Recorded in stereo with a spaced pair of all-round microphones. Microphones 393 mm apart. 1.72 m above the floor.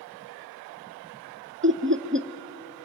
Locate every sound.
1.6 s laughter: 30° right (ahead or behind), 0.6 m